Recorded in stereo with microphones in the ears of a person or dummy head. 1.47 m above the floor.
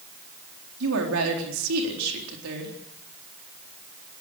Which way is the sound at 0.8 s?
70° right (ahead or behind).